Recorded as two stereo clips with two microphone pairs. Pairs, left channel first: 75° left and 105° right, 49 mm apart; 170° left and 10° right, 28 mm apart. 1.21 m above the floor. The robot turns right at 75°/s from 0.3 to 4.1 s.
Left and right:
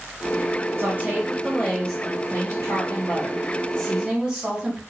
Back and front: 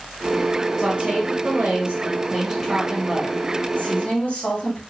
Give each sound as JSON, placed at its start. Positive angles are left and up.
{"t": 0.8, "sound": "a woman speaking", "azimuth_deg": -70, "distance_m": 1.9}